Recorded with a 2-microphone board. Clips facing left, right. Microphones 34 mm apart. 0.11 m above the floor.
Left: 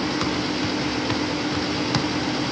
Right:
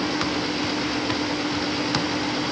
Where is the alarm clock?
I don't hear an alarm clock.